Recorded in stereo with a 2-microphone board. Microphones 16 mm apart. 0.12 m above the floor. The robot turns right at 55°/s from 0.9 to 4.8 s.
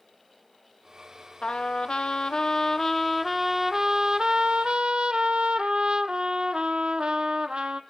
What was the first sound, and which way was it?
A trumpet, 80° left.